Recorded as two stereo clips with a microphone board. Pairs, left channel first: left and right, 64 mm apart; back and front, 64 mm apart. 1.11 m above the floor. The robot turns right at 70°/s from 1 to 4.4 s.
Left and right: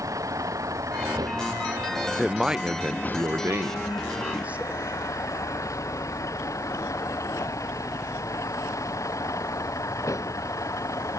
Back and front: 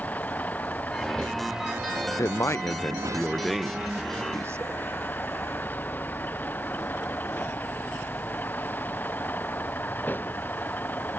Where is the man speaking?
175° left; by 4.8 s 30° right.